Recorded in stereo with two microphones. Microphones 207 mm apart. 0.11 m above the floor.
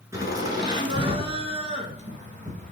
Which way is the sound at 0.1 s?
15° right (ahead or behind).